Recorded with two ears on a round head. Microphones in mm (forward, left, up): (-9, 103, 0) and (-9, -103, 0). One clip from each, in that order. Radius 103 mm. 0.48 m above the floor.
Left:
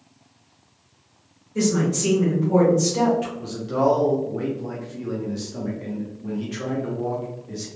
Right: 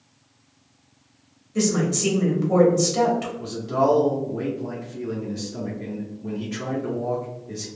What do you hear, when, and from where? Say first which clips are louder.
1.6 s a woman speaking: even; 30° right (ahead or behind), 1.7 m
3.4 s a man speaking: even; centre (ahead or behind), 0.8 m